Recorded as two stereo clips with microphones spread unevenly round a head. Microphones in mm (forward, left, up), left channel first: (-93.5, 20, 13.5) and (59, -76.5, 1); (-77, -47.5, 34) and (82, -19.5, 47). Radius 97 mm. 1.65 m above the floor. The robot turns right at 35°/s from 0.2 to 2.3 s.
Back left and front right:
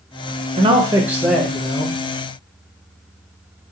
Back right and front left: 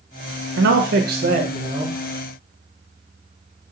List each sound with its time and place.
0.6 s a man speaking: 30° left, 0.8 m; by 2.0 s 80° left, 0.8 m